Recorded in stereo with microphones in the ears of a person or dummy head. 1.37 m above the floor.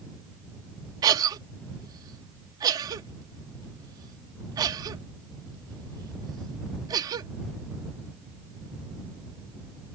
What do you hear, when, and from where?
1.0 s a cough: 20° right (ahead or behind)